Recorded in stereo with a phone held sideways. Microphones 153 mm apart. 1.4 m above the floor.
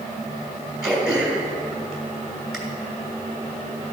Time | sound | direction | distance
0.8 | throat clearing | 5° right (ahead or behind) | 2.5 m